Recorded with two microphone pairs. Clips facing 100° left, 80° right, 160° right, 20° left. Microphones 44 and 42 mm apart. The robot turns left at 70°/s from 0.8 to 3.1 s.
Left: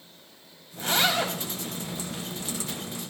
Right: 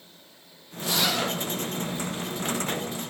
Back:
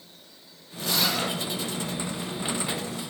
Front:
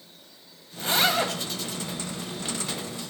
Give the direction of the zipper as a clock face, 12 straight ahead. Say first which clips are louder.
Left 2 dB, front 3 dB; 10 o'clock.